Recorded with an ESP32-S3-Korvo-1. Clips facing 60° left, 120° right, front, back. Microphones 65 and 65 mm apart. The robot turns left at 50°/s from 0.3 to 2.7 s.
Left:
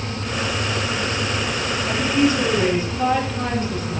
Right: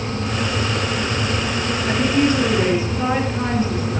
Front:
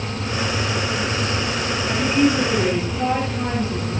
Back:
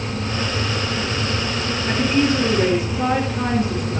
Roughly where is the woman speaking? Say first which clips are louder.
Right 1 dB, even; behind right.